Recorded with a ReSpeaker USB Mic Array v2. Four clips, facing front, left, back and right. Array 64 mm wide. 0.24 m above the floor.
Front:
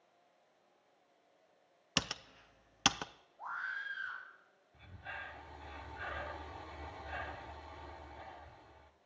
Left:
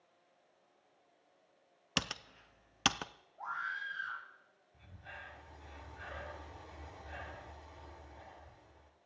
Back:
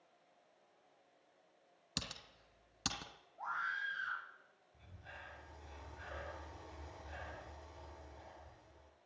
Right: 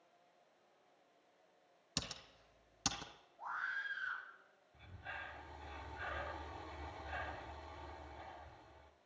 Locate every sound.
2.0 s typing on a keyboard: 55° left, 0.7 m
3.4 s a scream: 130° left, 4.5 m
4.7 s breathing: 25° right, 1.7 m